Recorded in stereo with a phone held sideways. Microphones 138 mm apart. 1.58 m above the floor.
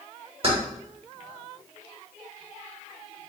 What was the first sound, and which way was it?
Keys jangling, 40° right (ahead or behind).